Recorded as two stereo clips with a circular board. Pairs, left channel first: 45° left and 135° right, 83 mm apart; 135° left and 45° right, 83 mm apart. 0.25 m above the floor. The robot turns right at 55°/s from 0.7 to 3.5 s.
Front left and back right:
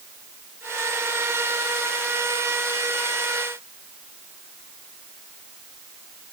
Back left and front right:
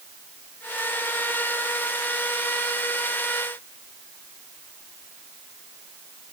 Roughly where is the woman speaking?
No woman speaking in this recording.